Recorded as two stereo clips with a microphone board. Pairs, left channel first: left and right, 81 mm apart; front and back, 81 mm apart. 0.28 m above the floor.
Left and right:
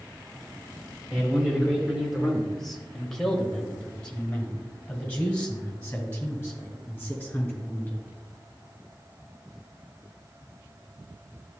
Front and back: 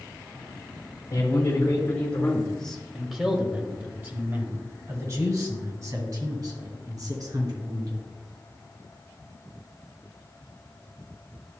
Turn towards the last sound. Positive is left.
turn(degrees=160)